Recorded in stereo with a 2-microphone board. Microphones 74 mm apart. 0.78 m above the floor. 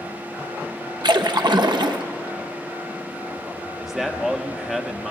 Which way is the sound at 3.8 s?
5° right (ahead or behind).